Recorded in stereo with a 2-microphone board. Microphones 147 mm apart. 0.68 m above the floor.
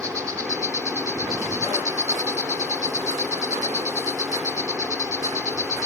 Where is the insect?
20° right (ahead or behind).